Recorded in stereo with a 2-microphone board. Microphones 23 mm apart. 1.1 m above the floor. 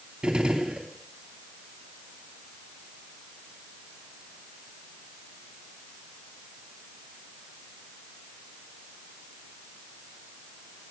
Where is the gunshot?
40° right (ahead or behind), 3 m.